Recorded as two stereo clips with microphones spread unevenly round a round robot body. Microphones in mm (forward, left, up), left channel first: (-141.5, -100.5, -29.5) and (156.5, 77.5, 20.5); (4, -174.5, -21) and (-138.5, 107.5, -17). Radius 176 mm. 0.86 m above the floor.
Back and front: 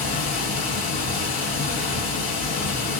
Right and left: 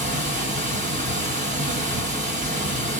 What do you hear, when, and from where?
0.0 s running water: 175° right, 1.3 m